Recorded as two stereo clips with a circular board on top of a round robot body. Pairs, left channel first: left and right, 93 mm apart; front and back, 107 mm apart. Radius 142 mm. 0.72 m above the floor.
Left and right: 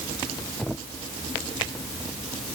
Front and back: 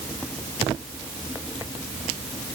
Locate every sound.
Only background noise.